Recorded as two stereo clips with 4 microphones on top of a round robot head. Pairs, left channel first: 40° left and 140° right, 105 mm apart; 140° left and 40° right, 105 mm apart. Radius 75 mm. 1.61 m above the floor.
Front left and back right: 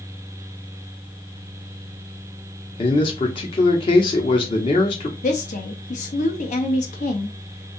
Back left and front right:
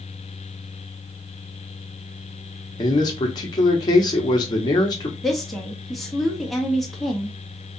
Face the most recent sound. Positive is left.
turn(degrees=50)